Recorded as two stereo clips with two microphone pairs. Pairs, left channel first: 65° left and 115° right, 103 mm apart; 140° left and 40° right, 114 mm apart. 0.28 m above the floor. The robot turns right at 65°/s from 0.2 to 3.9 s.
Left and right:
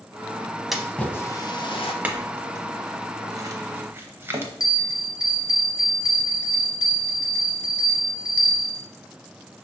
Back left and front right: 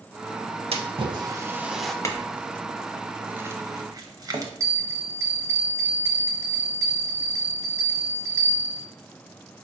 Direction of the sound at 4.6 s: 20° left.